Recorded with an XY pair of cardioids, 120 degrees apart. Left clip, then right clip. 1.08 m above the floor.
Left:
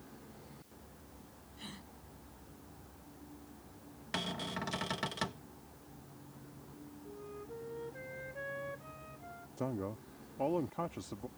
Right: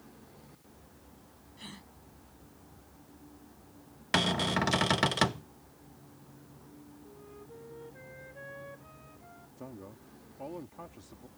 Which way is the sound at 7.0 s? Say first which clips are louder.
Left 5 dB; 20° left.